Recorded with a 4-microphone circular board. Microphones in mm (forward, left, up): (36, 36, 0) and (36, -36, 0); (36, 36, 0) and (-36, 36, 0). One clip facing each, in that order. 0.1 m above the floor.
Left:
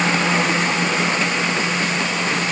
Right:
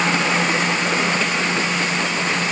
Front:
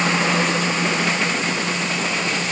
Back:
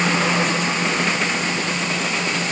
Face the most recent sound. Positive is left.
No sound to turn to.